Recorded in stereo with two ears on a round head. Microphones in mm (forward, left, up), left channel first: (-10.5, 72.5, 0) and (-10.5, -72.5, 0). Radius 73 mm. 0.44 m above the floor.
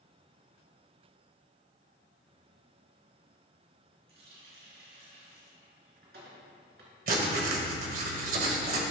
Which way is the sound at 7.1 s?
55° right (ahead or behind).